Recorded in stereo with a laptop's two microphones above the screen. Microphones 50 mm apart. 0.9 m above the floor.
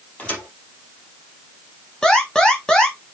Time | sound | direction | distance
0.2 | a thud | 30° left (ahead or behind) | 2.5 m
2.0 | an alarm | 15° left (ahead or behind) | 1.7 m